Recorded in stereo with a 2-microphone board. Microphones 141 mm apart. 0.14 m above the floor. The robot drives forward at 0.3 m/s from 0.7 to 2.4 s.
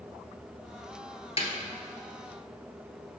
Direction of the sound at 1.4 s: 45° left (ahead or behind).